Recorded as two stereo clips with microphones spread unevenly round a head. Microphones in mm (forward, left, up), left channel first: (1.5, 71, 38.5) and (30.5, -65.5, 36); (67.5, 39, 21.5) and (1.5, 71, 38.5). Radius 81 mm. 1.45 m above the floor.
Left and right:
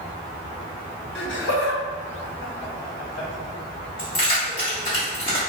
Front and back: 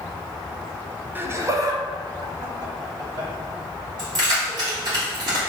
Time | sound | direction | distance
1.1 | laughter | 95° left | 0.6 m
4.0 | keys jangling | 160° left | 1.1 m